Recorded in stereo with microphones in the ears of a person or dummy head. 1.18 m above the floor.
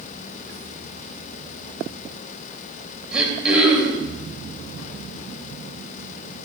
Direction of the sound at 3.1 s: 5° right (ahead or behind).